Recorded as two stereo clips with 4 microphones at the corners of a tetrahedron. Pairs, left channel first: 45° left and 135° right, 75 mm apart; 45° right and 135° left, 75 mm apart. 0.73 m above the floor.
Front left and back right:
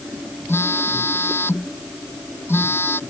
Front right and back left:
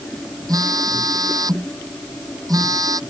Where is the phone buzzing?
105° left.